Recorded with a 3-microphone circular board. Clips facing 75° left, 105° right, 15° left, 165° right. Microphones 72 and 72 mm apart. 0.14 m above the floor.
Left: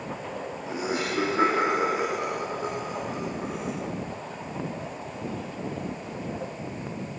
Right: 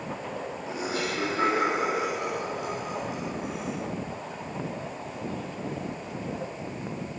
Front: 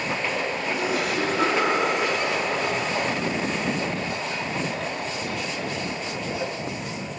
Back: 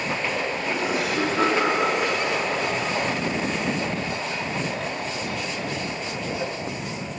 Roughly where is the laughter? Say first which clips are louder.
Left 2 dB, even; behind left.